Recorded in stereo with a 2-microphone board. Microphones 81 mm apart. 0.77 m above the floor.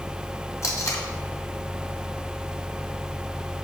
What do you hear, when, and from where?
0.6 s tape being pulled: 40° left (ahead or behind), 1.8 m